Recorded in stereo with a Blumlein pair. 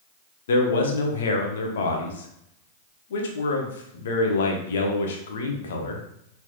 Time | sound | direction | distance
0.5 | a man speaking | 60° left | 0.8 m